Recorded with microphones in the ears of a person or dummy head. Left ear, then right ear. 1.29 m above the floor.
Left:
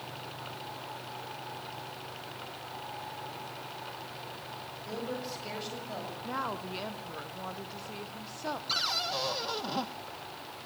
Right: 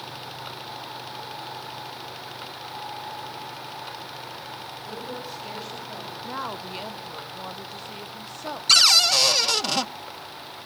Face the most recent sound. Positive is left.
turn(degrees=-70)  # may be behind; listen again after turning